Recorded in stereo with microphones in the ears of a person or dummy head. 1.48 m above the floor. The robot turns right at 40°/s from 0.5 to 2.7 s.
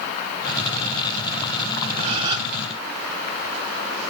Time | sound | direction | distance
2.0 | a gasp | 40° right (ahead or behind) | 2.5 m